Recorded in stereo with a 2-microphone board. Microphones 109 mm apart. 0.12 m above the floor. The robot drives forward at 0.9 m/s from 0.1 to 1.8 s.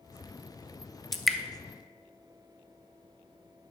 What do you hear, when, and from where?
1.1 s dripping: centre (ahead or behind), 0.6 m